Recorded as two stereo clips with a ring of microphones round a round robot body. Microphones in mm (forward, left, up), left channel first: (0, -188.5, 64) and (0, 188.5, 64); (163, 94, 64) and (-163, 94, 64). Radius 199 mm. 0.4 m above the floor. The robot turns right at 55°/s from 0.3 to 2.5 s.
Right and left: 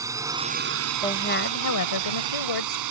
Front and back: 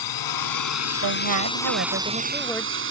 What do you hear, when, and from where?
0.0 s a drone: 10° left; by 2.9 s 130° left
1.0 s a woman speaking: 170° right; by 2.8 s 90° right